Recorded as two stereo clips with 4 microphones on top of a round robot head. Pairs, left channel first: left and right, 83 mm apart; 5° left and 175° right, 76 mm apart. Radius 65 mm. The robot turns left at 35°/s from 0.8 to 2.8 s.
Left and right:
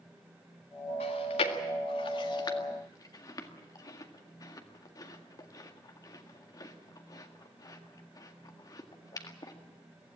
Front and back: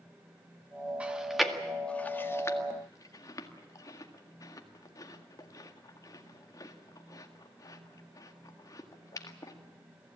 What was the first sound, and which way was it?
Chewing, 110° left.